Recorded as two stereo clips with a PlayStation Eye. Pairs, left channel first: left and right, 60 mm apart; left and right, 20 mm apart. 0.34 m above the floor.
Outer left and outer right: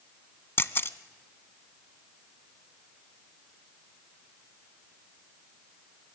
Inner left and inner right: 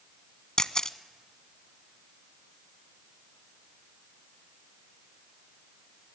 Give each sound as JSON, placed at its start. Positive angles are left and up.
{"t": 0.6, "sound": "a camera shutter", "side_deg": 45, "distance_m": 0.6}